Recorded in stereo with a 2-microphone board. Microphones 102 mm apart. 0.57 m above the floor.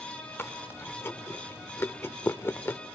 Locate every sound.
0.4 s chewing: 25° left (ahead or behind), 1.0 m